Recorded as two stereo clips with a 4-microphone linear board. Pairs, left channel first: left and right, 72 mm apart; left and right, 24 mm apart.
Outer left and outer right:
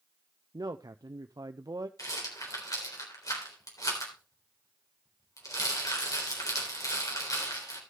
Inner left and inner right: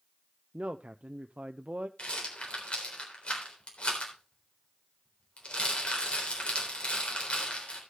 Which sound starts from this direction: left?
A rattle, at 2.0 s.